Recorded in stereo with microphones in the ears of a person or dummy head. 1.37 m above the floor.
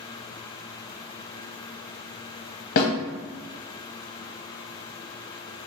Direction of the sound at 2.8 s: 50° left (ahead or behind).